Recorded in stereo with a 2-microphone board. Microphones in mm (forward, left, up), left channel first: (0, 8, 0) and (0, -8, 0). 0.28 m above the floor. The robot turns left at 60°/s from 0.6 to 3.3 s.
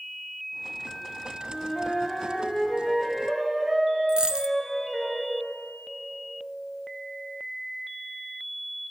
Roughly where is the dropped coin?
Right.